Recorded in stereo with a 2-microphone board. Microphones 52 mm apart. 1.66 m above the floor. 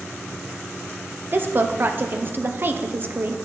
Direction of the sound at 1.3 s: 40° right (ahead or behind).